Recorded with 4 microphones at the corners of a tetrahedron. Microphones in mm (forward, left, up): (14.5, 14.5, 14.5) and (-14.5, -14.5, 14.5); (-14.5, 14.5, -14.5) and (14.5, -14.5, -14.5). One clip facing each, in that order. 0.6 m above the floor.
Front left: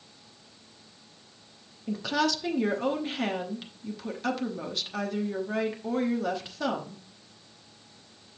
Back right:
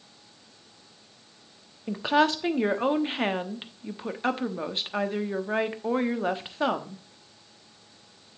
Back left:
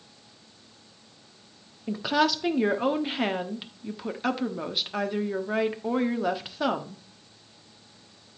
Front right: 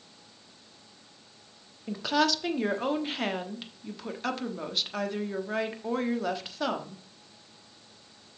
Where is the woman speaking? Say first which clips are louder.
Back right 5 dB, back left 2 dB; 155° right, 1.0 m.